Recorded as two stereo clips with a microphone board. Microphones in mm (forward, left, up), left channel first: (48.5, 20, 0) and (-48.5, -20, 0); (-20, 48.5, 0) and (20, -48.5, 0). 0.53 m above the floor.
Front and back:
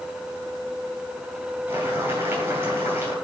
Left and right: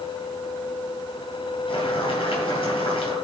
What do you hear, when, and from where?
1.7 s boiling: 140° left, 4 m